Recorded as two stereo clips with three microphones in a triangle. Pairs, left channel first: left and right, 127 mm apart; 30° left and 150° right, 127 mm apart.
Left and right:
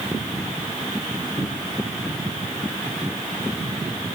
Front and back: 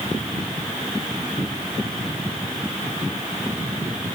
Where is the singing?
No singing in this recording.